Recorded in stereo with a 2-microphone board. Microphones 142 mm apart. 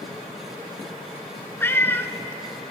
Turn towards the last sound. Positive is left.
turn(degrees=15)  # may be behind; listen again after turning